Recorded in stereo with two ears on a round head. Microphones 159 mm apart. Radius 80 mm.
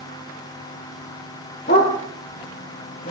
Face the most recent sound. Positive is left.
turn(degrees=45)  # may be behind; listen again after turning